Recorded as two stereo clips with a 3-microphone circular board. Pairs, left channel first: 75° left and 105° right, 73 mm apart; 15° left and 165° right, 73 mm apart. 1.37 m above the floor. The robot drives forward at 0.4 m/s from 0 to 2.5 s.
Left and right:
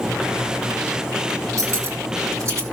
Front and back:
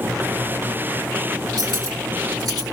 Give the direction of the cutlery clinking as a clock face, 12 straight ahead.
5 o'clock.